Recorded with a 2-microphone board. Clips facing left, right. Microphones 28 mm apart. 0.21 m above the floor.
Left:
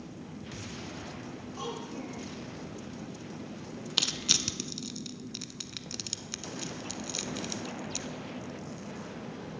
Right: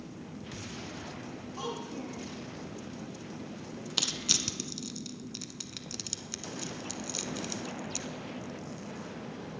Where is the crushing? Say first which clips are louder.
Left 2 dB; 15° left (ahead or behind), 0.7 m.